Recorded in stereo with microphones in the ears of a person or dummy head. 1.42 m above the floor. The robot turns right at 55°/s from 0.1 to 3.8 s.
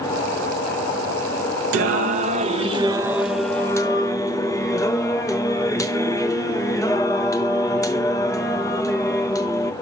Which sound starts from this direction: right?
Singing, at 1.7 s.